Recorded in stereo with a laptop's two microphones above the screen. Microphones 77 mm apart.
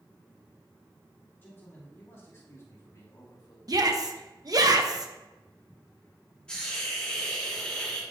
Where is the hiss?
15° left (ahead or behind), 1.5 m.